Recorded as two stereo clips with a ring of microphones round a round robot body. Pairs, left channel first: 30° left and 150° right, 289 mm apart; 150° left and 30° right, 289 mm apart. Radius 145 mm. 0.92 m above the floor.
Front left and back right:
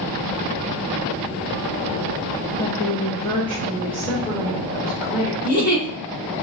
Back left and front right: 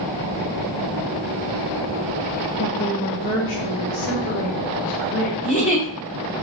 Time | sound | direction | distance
2.6 | a woman speaking | 110° left | 0.6 m
5.4 | a giggle | 85° left | 2 m